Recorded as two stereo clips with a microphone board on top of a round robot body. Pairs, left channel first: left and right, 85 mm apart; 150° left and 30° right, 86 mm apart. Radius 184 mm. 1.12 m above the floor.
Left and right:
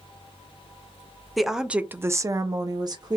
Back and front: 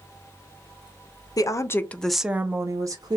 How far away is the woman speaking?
About 0.8 m.